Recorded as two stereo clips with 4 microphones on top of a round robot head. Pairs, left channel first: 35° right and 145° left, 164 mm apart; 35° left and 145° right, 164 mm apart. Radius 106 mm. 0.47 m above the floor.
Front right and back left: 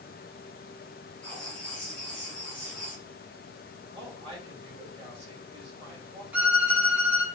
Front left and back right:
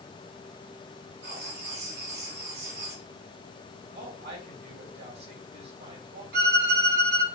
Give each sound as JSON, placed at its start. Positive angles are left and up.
{"t": 1.2, "sound": "writing", "azimuth_deg": -115, "distance_m": 1.6}
{"t": 3.9, "sound": "a woman speaking", "azimuth_deg": -155, "distance_m": 2.5}
{"t": 6.3, "sound": "a violin", "azimuth_deg": -130, "distance_m": 1.7}